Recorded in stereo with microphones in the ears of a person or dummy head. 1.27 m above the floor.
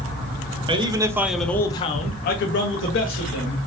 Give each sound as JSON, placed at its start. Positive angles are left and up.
{"t": 0.7, "sound": "a man speaking", "side_deg": -30, "distance_m": 0.7}